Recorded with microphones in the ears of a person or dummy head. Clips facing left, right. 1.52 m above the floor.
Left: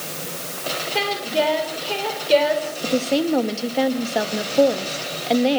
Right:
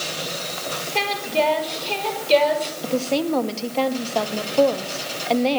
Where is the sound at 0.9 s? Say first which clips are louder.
Even; 5° left (ahead or behind), 5 m.